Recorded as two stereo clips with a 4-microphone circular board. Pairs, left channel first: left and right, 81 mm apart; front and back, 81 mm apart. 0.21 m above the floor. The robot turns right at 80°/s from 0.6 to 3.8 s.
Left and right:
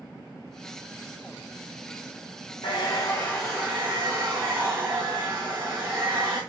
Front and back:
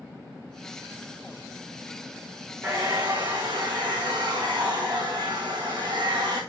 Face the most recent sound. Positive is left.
turn(degrees=-155)